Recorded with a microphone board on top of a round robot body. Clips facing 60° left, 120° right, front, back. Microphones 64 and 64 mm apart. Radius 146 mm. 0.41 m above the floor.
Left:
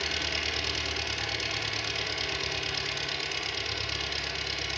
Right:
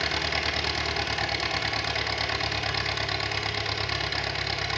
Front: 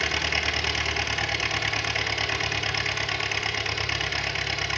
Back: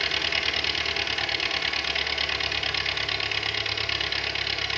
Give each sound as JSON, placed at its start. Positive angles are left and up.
{"t": 0.0, "sound": "an engine running", "azimuth_deg": -75, "distance_m": 3.5}